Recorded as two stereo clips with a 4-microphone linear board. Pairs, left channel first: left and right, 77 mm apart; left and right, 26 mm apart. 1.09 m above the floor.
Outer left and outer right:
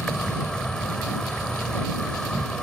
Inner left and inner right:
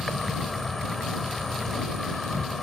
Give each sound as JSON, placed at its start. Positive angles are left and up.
{"t": 0.0, "sound": "an insect", "side_deg": 10}